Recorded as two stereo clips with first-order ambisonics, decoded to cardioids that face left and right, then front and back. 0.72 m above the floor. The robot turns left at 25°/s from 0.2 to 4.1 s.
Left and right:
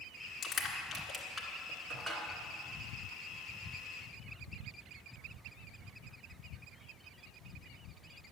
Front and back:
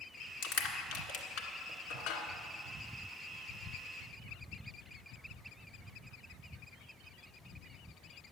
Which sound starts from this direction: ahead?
Crushing, at 0.4 s.